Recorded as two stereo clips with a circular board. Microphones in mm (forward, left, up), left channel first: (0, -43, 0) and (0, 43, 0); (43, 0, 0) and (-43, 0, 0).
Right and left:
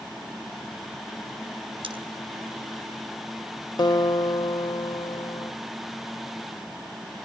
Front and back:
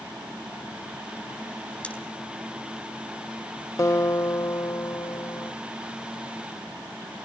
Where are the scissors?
75° left, 4.5 m.